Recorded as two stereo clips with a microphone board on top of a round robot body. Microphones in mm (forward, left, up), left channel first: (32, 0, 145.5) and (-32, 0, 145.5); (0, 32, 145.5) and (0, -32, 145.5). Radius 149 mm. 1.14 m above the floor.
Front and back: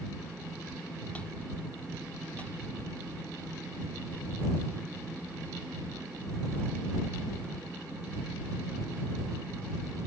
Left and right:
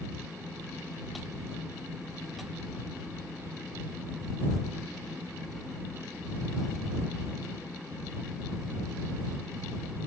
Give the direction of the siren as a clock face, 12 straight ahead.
No siren in this recording.